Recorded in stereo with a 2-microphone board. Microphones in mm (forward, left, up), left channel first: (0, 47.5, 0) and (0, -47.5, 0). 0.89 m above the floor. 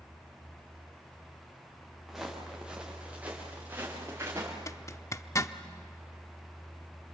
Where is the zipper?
30° left (ahead or behind), 0.7 m.